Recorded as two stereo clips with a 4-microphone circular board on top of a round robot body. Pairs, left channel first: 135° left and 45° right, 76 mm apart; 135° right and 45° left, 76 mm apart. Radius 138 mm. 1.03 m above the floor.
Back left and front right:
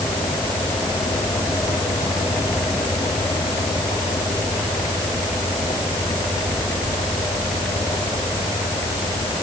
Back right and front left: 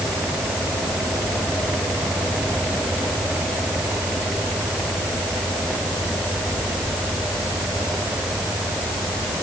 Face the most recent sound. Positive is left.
No sound to turn to.